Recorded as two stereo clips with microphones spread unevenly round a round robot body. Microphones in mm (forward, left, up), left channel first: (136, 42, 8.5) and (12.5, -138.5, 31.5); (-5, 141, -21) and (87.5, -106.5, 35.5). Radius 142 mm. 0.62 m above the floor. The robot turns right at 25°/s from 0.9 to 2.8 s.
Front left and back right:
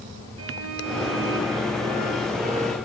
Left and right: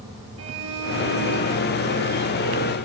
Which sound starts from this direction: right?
A violin, at 0.4 s.